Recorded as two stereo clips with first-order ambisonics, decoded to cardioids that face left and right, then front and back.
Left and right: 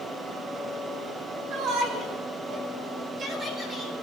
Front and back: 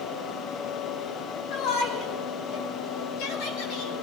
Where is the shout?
40° right, 5.5 m; by 3.9 s 15° right, 6.5 m.